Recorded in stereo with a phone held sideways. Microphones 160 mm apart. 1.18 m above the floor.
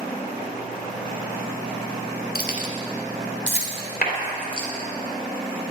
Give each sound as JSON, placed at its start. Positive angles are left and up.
{"t": 2.4, "sound": "keys jangling", "side_deg": 70, "distance_m": 1.8}
{"t": 4.0, "sound": "a clap", "side_deg": 70, "distance_m": 3.5}